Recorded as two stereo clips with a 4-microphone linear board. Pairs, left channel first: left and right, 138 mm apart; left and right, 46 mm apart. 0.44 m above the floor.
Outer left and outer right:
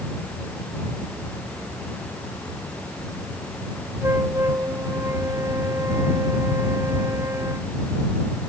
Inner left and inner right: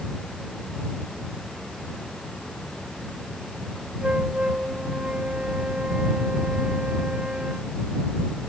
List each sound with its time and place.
4.0 s a flute: 25° right (ahead or behind)